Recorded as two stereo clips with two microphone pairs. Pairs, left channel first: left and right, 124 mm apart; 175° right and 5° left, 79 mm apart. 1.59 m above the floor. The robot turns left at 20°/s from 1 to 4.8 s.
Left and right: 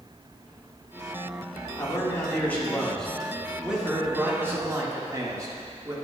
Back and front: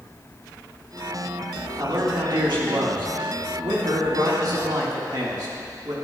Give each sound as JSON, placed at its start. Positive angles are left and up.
{"t": 1.8, "sound": "a man speaking", "azimuth_deg": 35, "distance_m": 1.9}